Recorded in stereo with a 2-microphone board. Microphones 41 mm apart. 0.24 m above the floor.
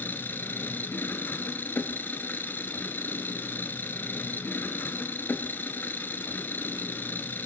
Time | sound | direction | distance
0.0 | an engine running | 60° left (ahead or behind) | 0.8 m